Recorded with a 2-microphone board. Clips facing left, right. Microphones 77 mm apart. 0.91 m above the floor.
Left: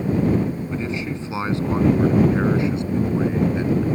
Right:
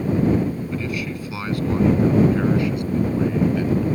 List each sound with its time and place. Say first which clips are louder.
0.7 s a man speaking: left 1 dB; 25° left (ahead or behind)